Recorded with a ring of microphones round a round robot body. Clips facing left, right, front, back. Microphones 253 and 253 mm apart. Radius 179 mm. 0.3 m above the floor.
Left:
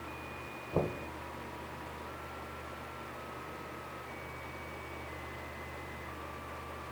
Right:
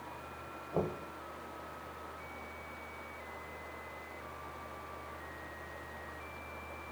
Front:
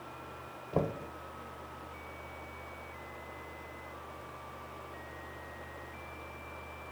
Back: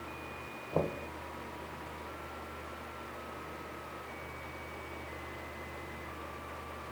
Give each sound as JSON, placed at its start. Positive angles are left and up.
{"t": 0.7, "sound": "knocking", "azimuth_deg": 75, "distance_m": 0.6}